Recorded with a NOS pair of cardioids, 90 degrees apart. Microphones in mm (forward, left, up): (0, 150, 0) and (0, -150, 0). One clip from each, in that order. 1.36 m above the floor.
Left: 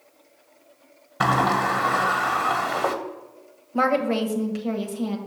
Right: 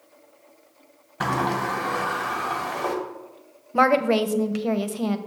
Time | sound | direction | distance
1.2 | a sliding door | 30° left | 1.3 m
3.7 | a woman speaking | 30° right | 0.8 m